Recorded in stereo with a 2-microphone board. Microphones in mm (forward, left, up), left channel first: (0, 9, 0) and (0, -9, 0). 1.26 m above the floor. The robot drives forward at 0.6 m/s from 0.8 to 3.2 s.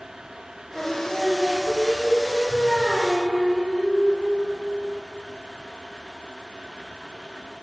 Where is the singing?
10° right (ahead or behind), 3 m; by 4.6 s 5° right (ahead or behind), 4 m.